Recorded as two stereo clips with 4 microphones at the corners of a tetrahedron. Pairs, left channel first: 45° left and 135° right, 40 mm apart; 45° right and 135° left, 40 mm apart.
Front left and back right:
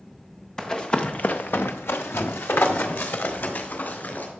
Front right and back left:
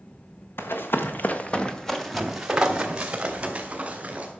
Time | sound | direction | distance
0.6 | running footsteps | 30° right | 1.3 m